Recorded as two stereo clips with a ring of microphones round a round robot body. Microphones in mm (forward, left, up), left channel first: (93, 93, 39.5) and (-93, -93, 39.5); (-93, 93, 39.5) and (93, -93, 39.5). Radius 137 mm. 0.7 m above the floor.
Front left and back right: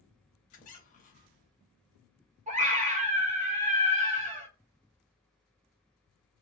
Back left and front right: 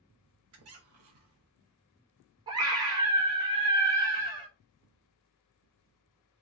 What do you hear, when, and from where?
0.5 s a squeak: 15° right, 0.7 m
2.5 s a scream: 105° right, 1.0 m